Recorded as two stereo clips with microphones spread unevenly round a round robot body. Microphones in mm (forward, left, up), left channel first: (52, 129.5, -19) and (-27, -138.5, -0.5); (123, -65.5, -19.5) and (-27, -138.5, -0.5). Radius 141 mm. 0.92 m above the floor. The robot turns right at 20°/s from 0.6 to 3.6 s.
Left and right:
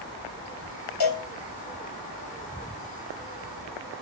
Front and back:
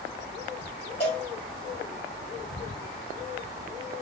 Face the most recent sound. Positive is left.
turn(degrees=150)